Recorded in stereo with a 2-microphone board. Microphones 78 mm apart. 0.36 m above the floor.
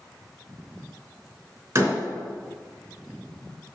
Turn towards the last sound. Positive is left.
turn(degrees=-35)  # may be behind; listen again after turning